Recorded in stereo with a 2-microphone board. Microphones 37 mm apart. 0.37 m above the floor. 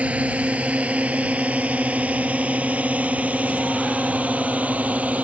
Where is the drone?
40° right (ahead or behind); by 5.2 s 45° right (ahead or behind).